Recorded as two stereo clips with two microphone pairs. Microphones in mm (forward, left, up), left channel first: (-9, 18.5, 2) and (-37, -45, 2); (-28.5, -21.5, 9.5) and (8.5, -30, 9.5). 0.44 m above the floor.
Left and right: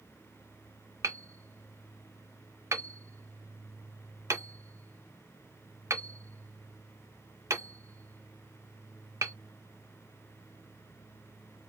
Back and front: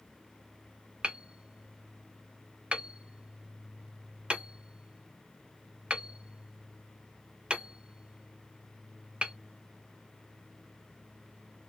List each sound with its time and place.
1.0 s hammering: 75° right, 0.7 m